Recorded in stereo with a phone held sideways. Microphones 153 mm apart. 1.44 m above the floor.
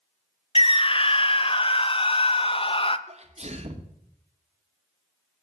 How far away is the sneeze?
About 1.6 m.